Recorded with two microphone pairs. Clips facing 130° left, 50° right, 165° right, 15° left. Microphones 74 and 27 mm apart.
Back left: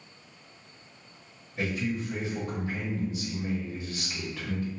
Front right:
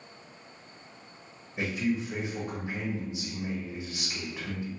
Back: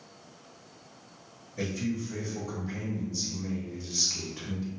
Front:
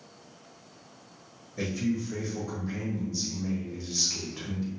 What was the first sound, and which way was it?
A man speaking, 50° right.